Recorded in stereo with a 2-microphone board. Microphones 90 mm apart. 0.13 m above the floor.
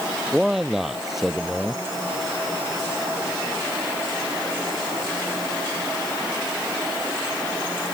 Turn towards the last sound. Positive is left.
turn(degrees=-5)  # may be behind; listen again after turning